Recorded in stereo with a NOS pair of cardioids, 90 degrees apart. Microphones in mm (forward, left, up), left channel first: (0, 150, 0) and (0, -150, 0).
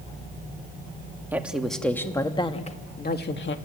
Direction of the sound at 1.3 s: 5° right.